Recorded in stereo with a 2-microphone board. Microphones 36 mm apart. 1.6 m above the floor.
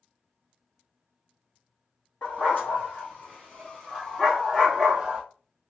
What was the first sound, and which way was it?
A dog barking, 50° left (ahead or behind).